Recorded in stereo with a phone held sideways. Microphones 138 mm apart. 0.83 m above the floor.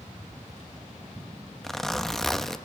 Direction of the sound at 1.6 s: 5° left (ahead or behind).